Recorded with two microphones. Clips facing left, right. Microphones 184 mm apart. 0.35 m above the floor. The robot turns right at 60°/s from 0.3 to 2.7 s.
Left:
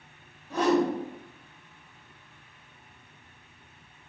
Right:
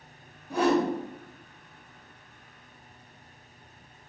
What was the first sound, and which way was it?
A whoosh, 15° right (ahead or behind).